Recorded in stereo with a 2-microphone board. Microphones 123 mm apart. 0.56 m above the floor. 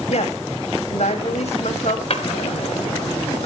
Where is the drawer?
55° left (ahead or behind), 1.8 m.